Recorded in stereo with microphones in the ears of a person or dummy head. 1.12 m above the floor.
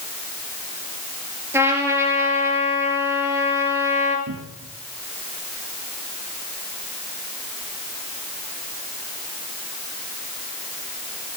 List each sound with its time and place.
1.5 s a trumpet: 10° right (ahead or behind), 4 m
4.3 s a cupboard door: 75° right (ahead or behind), 1.6 m